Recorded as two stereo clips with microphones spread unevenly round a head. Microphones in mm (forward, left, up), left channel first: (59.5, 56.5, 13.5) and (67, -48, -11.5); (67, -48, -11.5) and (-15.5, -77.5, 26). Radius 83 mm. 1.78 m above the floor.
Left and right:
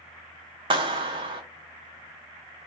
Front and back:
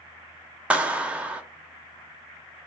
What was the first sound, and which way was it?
A clap, 130° right.